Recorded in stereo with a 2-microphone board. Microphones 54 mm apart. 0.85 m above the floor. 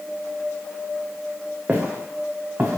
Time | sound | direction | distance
1.7 | footsteps | 25° right (ahead or behind) | 5.5 m